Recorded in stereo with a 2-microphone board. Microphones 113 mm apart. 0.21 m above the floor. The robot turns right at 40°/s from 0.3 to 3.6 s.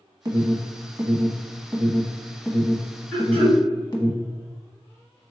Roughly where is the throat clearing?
Centre.